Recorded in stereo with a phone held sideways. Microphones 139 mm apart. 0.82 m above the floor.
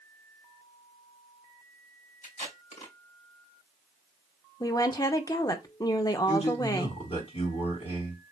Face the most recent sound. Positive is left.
turn(degrees=50)  # may be behind; listen again after turning